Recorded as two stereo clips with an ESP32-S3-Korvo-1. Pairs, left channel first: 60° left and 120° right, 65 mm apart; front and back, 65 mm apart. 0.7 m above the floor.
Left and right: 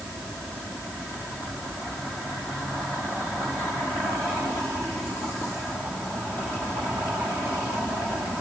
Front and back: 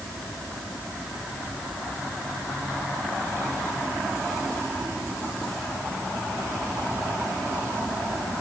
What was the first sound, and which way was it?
Only background noise.